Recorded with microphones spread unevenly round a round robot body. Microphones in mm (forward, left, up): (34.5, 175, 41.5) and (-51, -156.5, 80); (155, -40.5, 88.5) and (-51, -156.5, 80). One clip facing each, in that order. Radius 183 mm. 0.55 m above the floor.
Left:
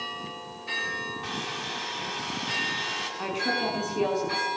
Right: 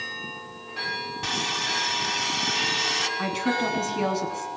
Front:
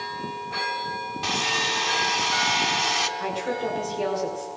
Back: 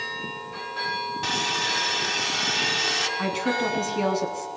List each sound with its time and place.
1.2 s sawing: 75° right, 3 m
3.2 s a woman speaking: 160° right, 7 m